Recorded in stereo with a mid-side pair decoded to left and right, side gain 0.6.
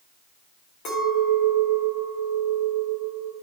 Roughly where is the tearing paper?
I don't hear tearing paper.